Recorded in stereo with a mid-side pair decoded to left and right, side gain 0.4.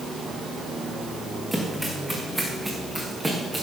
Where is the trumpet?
I don't hear a trumpet.